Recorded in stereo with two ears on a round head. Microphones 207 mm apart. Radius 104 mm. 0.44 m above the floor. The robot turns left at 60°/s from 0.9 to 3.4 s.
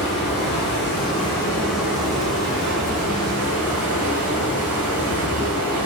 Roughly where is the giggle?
I don't hear a giggle.